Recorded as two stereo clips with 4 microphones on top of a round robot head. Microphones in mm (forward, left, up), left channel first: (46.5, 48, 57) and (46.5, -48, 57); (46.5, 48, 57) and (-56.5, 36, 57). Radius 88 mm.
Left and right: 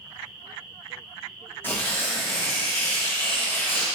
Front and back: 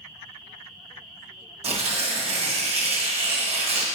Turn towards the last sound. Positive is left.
turn(degrees=160)